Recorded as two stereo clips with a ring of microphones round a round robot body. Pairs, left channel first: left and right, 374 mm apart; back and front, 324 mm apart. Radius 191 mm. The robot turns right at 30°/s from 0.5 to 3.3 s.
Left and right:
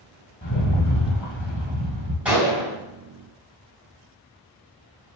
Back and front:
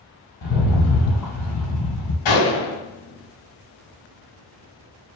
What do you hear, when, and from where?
0.4 s a rattle: 150° left, 3.5 m; by 2.1 s 160° right, 3.5 m
2.2 s a gunshot: 175° right, 3 m; by 2.7 s 160° right, 3 m